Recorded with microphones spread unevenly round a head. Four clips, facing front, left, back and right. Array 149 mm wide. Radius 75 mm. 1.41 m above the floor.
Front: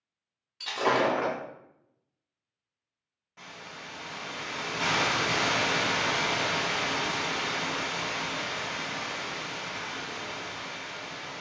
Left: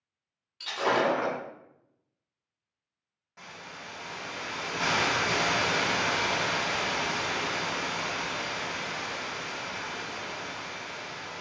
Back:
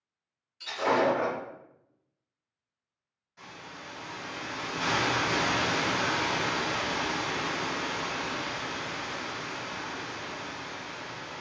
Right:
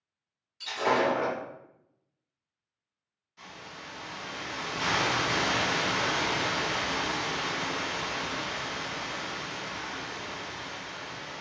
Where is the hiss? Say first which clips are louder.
Left 1 dB, even; 50° left, 1.1 m.